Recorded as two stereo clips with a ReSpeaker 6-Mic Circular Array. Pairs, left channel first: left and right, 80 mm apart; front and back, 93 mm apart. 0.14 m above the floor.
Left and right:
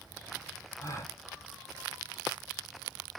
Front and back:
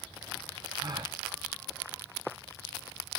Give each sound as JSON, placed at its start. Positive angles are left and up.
{"t": 0.8, "sound": "a gasp", "azimuth_deg": 140, "distance_m": 1.9}